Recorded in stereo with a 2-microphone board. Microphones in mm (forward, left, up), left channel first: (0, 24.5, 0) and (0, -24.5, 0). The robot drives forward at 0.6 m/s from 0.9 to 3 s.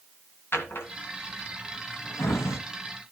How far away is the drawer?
About 2 m.